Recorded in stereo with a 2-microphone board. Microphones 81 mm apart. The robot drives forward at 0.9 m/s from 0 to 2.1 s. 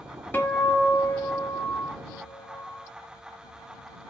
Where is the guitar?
25° left (ahead or behind), 1.5 m; by 2.9 s 45° left (ahead or behind), 0.9 m.